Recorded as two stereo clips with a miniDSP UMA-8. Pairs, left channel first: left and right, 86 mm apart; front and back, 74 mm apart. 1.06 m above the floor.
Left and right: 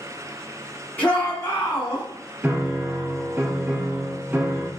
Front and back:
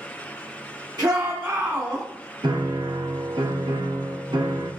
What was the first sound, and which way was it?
A shout, 160° left.